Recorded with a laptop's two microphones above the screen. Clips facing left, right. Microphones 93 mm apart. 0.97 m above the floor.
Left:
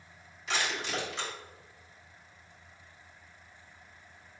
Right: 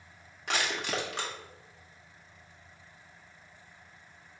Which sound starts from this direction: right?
Crushing, at 0.5 s.